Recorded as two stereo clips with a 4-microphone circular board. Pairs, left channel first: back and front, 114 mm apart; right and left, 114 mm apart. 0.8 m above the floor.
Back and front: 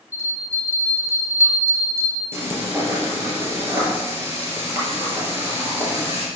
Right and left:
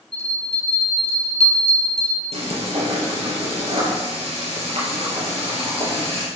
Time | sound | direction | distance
0.1 | a bell | 115° right | 2.5 m
2.3 | frying | 65° left | 3.5 m